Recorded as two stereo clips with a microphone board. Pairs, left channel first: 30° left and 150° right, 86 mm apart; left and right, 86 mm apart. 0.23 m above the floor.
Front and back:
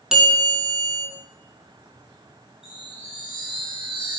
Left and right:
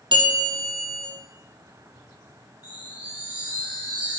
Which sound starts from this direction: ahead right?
A bell, at 0.1 s.